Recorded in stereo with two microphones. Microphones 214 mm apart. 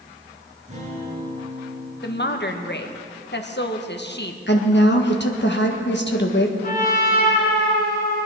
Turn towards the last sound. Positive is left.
turn(degrees=40)  # may be behind; listen again after turning